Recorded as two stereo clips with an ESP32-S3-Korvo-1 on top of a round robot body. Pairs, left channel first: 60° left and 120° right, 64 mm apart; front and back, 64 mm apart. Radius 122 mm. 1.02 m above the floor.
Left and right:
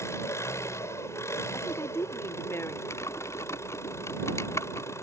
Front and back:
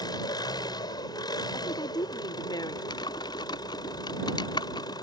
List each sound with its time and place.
0.0 s an engine running: 10° left
1.5 s a woman speaking: 5° left
2.9 s typing on a keyboard: 10° left